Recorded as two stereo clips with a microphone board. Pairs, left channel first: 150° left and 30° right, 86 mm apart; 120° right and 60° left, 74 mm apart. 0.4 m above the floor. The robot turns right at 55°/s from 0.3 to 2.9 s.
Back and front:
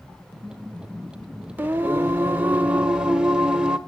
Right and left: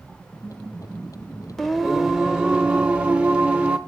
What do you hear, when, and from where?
1.6 s singing: 45° right, 0.9 m; by 3.8 s 30° left, 0.9 m